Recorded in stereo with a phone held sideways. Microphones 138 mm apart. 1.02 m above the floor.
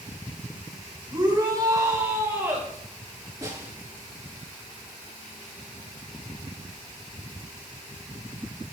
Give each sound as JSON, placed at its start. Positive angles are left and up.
{"t": 1.1, "sound": "a shout", "side_deg": -35, "distance_m": 4.5}
{"t": 3.4, "sound": "a snare drum", "side_deg": -20, "distance_m": 9.5}